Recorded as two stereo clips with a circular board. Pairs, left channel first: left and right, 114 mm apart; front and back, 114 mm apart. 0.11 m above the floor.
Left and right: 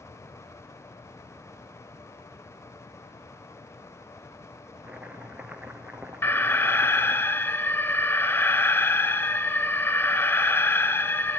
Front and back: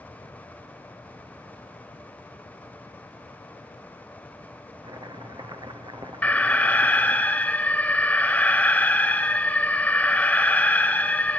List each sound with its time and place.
4.8 s chopping: 165° right, 1.4 m
6.2 s an alarm: 55° left, 1.1 m